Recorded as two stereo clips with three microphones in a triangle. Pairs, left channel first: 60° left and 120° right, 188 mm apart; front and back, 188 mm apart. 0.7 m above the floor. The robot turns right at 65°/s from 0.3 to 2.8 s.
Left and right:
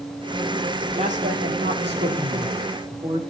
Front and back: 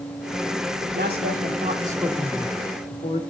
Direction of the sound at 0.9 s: 175° right.